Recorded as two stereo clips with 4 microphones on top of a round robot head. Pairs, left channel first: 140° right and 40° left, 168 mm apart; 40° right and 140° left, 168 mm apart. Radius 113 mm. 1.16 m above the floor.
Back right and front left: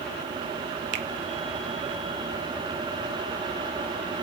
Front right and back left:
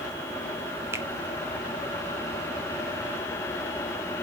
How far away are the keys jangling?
I don't hear keys jangling.